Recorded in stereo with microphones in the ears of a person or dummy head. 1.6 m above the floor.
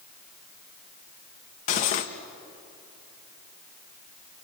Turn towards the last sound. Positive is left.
turn(degrees=45)  # may be behind; listen again after turning